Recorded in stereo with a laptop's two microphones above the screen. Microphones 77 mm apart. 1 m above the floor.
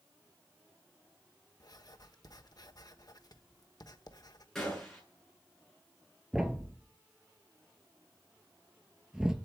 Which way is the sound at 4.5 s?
5° left (ahead or behind).